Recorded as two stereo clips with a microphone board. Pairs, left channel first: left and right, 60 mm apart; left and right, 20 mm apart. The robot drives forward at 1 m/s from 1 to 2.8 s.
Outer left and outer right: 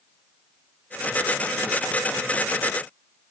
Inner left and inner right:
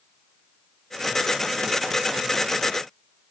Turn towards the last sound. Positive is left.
No sound to turn to.